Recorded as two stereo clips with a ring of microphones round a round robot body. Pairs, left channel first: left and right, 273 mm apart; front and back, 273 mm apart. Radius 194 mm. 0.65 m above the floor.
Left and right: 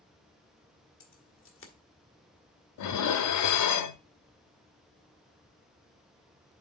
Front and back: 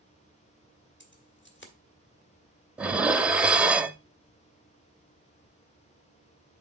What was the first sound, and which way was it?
Keys jangling, 50° left.